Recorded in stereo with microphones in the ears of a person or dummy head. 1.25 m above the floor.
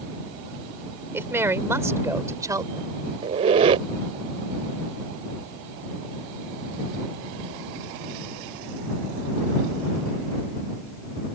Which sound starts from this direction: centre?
A woman speaking, at 1.1 s.